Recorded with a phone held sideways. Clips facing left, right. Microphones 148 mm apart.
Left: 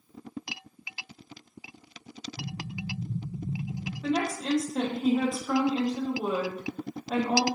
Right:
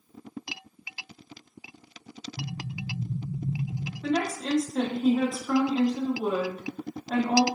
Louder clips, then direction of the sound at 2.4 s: Right 1 dB; 35° right (ahead or behind).